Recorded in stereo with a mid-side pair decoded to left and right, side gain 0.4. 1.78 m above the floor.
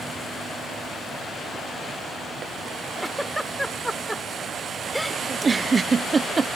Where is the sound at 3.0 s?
Straight ahead.